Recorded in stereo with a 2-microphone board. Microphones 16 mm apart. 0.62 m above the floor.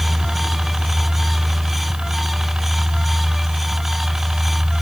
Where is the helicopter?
60° right (ahead or behind).